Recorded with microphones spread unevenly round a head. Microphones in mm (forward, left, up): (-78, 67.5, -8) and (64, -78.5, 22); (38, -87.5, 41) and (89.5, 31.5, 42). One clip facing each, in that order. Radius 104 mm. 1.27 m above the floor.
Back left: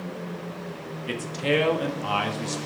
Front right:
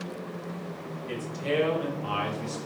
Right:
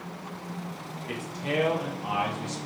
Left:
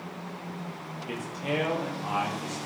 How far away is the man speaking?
About 1.7 m.